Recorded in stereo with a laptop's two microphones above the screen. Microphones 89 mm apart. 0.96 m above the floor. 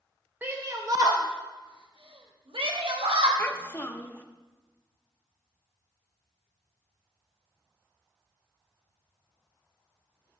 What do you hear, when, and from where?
0.4 s a shout: 20° right (ahead or behind), 0.7 m; by 3.3 s 80° right, 1.7 m
3.4 s a child speaking: 25° left (ahead or behind), 0.7 m